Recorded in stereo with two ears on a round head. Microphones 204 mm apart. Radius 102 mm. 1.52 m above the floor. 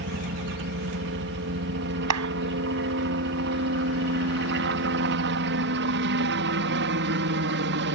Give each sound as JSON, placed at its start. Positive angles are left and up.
{"t": 0.0, "sound": "a helicopter", "side_deg": -55}
{"t": 2.1, "sound": "a clap", "side_deg": -80}